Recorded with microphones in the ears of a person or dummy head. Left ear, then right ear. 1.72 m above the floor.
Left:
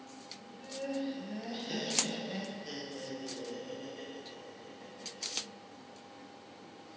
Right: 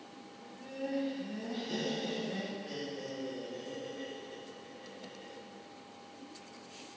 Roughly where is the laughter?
Centre.